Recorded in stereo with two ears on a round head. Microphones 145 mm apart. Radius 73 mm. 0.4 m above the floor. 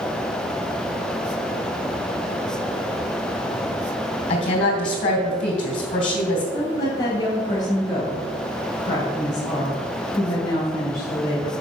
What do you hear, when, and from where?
4.3 s a woman speaking: 50° left (ahead or behind), 2.5 m
6.5 s a woman speaking: 25° left (ahead or behind), 1.9 m